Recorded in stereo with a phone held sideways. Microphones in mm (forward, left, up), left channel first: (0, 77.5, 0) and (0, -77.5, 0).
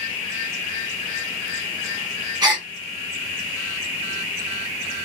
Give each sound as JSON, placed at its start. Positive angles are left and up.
{"t": 2.4, "sound": "a gasp", "side_deg": -30, "distance_m": 1.3}